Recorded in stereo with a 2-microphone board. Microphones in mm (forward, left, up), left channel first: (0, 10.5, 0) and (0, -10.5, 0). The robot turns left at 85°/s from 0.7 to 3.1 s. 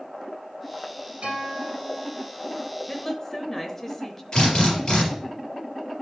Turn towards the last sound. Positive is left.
turn(degrees=45)  # may be behind; listen again after turning